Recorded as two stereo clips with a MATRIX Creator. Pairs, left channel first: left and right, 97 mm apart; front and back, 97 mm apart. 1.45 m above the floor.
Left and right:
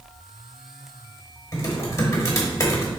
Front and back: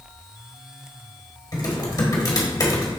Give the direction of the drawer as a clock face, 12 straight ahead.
I don't hear a drawer.